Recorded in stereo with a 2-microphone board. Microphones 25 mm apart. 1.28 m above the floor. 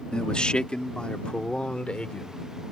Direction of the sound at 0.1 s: 45° left (ahead or behind).